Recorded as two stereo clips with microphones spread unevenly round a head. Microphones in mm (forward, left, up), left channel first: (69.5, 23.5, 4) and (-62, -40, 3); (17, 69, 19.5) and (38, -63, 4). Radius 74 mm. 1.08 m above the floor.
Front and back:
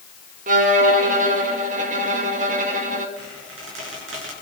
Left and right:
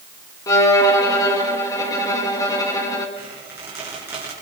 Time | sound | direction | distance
0.5 | a violin | 170° left | 2.0 m
3.2 | a squeak | 155° right | 7 m